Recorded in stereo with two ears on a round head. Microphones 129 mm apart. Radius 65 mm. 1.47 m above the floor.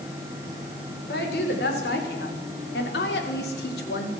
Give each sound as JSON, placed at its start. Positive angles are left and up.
{"t": 1.1, "sound": "a woman speaking", "side_deg": 85, "distance_m": 6.0}